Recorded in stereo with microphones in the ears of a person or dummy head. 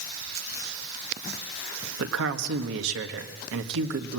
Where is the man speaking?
75° right (ahead or behind), 1.6 m.